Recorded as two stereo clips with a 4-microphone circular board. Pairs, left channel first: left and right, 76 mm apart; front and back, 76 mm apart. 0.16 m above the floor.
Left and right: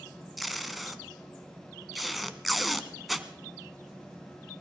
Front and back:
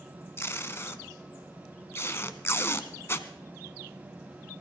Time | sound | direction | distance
0.4 | tape being pulled | straight ahead | 0.8 m